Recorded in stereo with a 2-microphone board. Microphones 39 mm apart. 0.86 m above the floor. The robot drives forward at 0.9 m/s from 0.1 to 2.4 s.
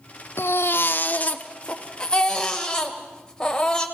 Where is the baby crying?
70° left (ahead or behind), 0.7 m; by 3.9 s 20° left (ahead or behind), 1.8 m.